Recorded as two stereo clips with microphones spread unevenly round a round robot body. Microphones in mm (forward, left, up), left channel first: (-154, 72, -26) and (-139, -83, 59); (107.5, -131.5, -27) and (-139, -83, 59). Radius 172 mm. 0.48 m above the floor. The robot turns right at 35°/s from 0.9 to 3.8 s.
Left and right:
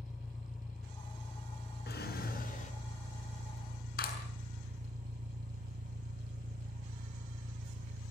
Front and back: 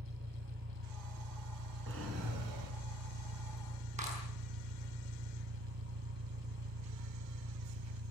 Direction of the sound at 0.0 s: 110° left.